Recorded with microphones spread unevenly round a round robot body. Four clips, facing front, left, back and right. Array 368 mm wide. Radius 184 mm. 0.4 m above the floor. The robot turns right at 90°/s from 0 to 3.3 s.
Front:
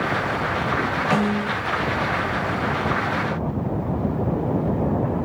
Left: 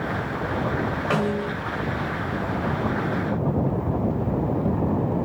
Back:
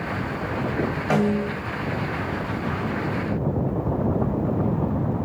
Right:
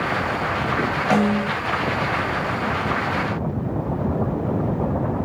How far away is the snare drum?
About 2 m.